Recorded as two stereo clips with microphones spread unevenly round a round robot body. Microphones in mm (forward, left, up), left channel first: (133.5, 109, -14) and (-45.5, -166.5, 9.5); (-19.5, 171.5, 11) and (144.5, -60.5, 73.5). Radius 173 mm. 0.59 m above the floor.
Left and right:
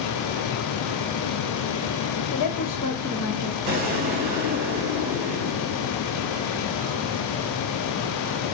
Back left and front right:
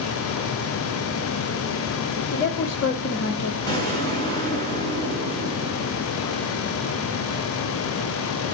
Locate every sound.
2.3 s a woman speaking: 100° left, 1.6 m; by 3.6 s 165° left, 1.3 m
3.7 s an explosion: 155° right, 4 m